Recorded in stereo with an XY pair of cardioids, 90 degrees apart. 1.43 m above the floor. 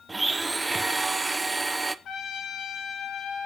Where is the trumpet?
70° left, 3.5 m.